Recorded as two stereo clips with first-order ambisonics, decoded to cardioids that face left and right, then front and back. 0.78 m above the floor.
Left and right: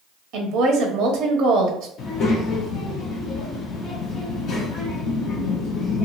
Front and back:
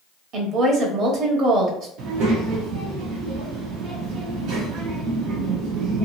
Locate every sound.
0.3 s a woman speaking: 130° right, 1.0 m
2.0 s a child speaking: 145° left, 0.9 m